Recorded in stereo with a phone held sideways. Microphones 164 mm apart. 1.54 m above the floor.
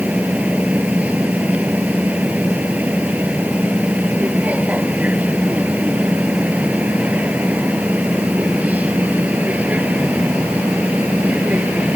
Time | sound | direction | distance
0.0 | a machine running | 10° right (ahead or behind) | ?